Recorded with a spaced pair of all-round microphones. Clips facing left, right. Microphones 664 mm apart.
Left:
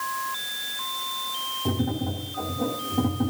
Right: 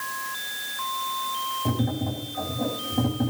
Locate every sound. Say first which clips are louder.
1.6 s tapping: even; 5° right (ahead or behind), 5 m